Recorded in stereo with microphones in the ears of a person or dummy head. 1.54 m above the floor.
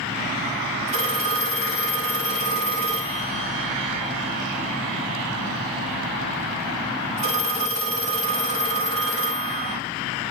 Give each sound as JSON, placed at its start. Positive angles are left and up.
{"t": 0.9, "sound": "a phone ringing", "side_deg": -40, "distance_m": 1.8}